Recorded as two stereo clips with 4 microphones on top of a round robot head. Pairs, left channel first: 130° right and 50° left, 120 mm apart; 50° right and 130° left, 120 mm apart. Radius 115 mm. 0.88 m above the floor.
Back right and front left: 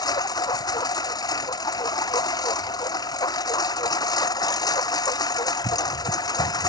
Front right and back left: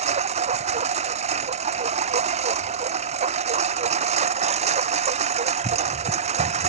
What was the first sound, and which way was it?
A lawn mower, 170° left.